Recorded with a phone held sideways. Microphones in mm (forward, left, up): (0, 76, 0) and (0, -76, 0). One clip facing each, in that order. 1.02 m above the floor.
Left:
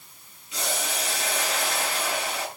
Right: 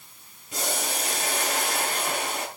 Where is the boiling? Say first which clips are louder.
Right 1 dB; 50° right (ahead or behind), 6 m.